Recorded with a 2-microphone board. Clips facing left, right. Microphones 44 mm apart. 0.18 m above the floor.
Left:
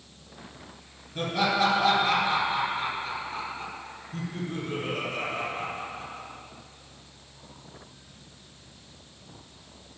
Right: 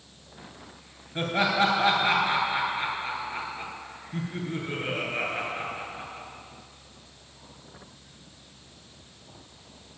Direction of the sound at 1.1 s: 35° right (ahead or behind).